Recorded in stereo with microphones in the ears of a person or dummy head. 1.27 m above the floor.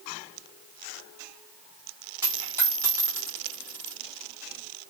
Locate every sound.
2.2 s a dropped coin: 15° right (ahead or behind), 1.4 m